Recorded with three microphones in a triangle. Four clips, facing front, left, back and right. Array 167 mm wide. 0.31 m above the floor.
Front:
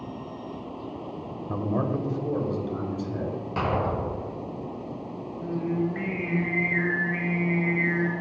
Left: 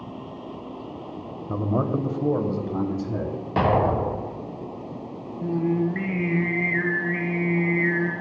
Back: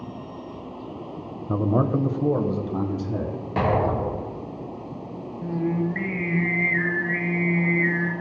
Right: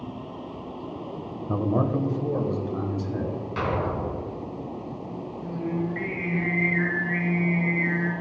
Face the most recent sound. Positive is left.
turn(degrees=100)